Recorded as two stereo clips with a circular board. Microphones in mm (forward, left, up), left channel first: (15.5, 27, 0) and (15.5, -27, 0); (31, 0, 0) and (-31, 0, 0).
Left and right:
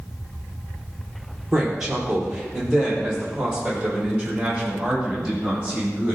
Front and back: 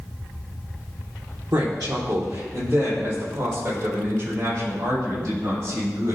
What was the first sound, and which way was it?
A woman speaking, 170° right.